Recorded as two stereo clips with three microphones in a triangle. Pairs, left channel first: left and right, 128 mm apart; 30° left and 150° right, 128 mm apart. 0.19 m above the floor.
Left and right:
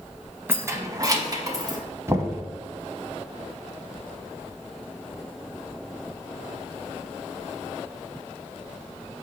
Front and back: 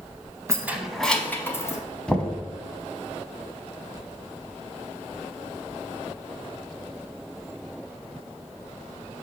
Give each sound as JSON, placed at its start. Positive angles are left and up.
{"t": 0.5, "sound": "keys jangling", "azimuth_deg": -135, "distance_m": 0.7}
{"t": 2.1, "sound": "knocking", "azimuth_deg": -45, "distance_m": 0.8}